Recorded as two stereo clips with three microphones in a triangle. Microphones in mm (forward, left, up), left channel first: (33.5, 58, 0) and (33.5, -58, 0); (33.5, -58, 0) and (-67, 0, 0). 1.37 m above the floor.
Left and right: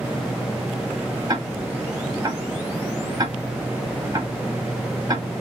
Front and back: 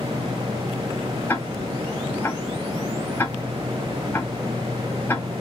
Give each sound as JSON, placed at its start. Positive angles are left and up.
{"t": 1.3, "sound": "ticking", "azimuth_deg": -85, "distance_m": 1.3}